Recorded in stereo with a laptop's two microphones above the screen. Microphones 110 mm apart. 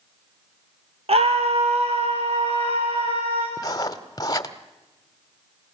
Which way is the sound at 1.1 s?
70° right (ahead or behind).